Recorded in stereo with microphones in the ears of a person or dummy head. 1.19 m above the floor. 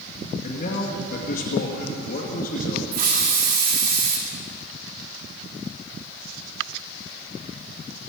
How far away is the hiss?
About 1.6 m.